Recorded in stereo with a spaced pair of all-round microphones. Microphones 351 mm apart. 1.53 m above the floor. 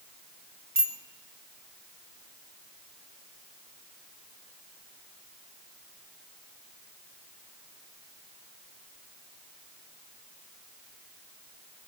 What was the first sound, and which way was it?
A bicycle bell, 35° right (ahead or behind).